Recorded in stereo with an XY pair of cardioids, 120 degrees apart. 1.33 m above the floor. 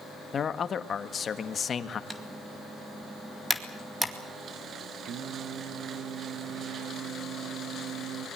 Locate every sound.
0.3 s a man speaking: 40° left, 1.7 m
2.1 s typing on a keyboard: 10° right, 2 m
5.0 s singing: 65° right, 1.2 m